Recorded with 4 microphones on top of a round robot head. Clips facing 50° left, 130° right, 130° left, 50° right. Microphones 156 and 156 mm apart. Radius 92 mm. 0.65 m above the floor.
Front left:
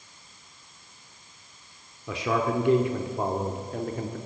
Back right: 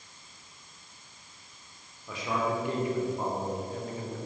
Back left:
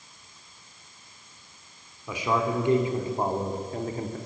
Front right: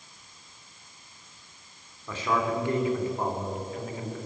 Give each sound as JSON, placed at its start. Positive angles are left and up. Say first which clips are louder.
{"t": 2.1, "sound": "a man speaking", "louder": "front left 4 dB, back left 1 dB", "azimuth_deg": 50, "distance_m": 2.5}